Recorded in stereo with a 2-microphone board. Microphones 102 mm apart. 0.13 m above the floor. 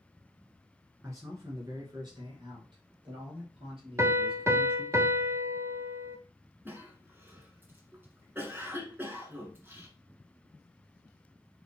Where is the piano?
25° right (ahead or behind), 0.5 m.